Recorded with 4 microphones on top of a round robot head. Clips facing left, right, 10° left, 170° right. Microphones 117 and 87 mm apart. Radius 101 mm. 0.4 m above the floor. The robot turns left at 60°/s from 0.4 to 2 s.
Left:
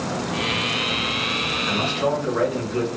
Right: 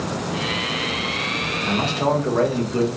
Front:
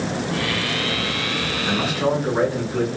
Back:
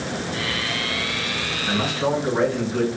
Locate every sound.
1.6 s a man speaking: 45° right, 1.5 m; by 2.9 s 65° right, 1.5 m